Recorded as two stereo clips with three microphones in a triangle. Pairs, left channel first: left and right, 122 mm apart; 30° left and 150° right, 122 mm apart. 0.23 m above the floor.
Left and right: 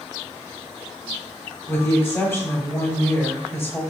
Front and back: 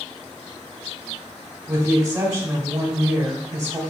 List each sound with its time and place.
1.7 s a woman speaking: 155° left, 1.1 m